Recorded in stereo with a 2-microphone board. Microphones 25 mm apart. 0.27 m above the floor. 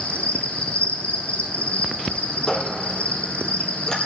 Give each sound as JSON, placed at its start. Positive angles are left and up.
{"t": 0.0, "sound": "an insect", "side_deg": 75, "distance_m": 0.8}
{"t": 2.5, "sound": "a squeak", "side_deg": 30, "distance_m": 2.0}